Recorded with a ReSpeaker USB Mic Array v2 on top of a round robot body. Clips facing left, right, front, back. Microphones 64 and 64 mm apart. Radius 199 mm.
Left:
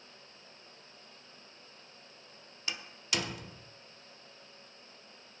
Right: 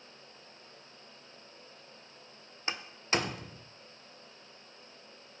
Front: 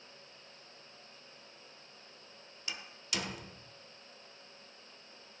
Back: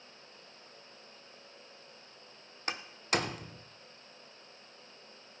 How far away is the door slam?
About 0.9 m.